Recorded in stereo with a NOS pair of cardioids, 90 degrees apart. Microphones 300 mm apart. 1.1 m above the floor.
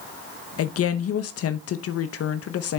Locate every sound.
0.6 s a woman speaking: 50° left, 0.8 m